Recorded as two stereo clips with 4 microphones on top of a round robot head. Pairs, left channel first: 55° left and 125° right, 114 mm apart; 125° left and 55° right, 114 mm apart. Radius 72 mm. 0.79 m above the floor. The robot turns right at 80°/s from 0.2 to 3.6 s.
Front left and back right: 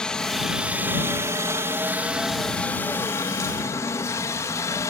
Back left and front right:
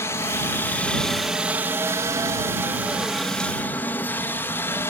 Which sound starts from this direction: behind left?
A helicopter, at 0.0 s.